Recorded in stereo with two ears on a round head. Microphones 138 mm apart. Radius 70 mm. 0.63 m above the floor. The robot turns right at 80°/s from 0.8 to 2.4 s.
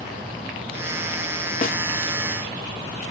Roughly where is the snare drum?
Left.